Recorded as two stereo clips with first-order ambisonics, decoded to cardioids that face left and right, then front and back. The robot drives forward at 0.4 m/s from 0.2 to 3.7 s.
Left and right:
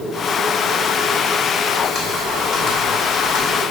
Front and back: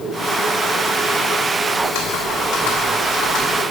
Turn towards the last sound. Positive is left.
turn(degrees=45)